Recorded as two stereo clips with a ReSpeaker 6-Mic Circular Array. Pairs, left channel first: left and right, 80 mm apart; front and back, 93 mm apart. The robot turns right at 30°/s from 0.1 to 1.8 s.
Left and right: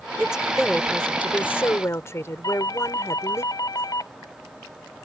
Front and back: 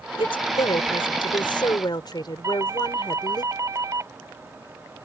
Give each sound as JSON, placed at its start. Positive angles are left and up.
{"t": 0.2, "sound": "a woman speaking", "azimuth_deg": -10}
{"t": 2.4, "sound": "a doorbell", "azimuth_deg": 130}